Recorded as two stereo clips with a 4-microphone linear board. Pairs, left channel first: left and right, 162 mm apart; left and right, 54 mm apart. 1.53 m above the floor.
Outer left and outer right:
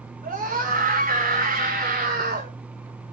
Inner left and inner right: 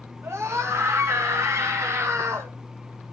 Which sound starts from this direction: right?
A scream, at 0.2 s.